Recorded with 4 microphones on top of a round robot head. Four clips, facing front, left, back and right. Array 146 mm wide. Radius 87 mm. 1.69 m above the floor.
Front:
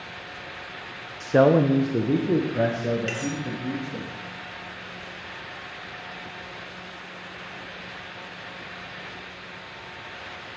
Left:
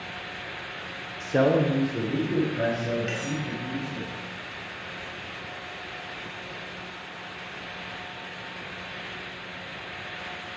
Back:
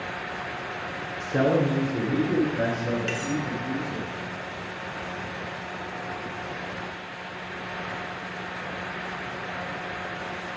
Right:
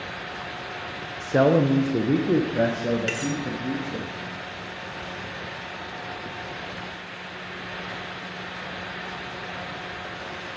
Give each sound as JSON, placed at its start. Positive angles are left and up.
{"t": 1.2, "sound": "a man speaking", "azimuth_deg": 0, "distance_m": 0.6}
{"t": 3.1, "sound": "cutlery clinking", "azimuth_deg": -90, "distance_m": 1.3}